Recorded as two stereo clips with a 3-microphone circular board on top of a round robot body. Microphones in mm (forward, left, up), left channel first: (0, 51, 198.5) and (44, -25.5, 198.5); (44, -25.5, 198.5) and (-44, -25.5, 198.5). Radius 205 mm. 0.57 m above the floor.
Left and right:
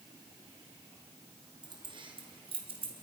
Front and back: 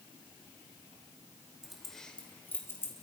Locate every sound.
1.6 s keys jangling: 95° right, 2.5 m; by 2.9 s 60° right, 3 m